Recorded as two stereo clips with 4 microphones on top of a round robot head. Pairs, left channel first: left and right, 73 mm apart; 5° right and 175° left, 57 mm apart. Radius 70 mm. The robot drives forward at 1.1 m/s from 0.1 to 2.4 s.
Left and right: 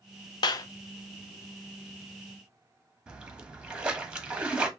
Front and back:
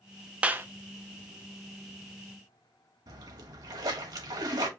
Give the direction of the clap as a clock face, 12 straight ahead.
8 o'clock.